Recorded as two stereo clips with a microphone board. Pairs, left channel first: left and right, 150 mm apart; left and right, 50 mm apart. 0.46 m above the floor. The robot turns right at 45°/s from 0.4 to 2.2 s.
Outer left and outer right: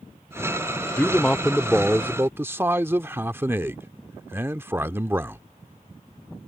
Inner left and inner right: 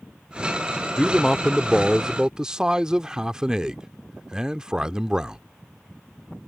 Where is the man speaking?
155° left; by 5.4 s 150° right.